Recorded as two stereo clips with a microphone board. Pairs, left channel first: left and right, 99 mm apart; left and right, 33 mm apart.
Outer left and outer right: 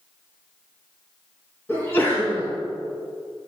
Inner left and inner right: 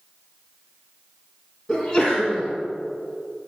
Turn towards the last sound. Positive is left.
turn(degrees=25)  # may be behind; listen again after turning